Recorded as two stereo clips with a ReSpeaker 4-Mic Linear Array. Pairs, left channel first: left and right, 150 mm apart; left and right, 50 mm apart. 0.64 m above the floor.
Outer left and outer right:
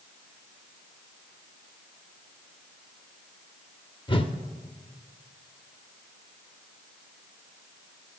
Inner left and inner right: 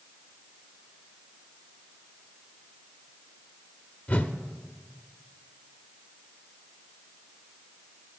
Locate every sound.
4.1 s a whoosh: 35° left (ahead or behind), 0.6 m